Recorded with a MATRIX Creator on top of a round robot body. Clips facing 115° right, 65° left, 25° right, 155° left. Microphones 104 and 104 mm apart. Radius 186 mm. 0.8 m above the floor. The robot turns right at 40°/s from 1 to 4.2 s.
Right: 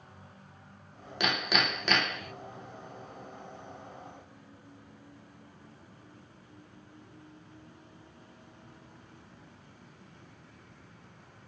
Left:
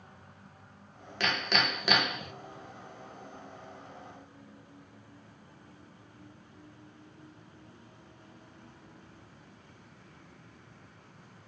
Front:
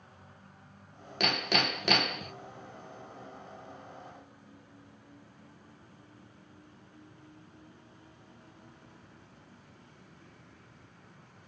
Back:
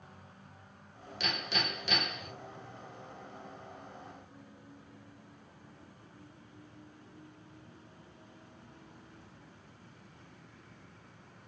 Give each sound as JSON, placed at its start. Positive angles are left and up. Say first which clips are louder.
{"t": 1.2, "sound": "hammering", "louder": "even, front 6 dB", "azimuth_deg": -40, "distance_m": 0.5}